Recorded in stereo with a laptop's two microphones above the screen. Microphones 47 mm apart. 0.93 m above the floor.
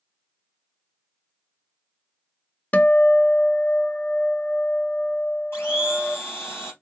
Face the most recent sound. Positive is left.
turn(degrees=55)  # may be behind; listen again after turning